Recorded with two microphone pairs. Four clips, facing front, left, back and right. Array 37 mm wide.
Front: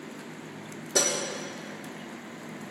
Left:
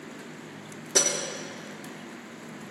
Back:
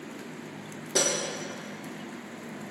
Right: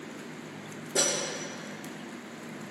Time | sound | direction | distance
0.9 | breaking glass | 120° left | 6 m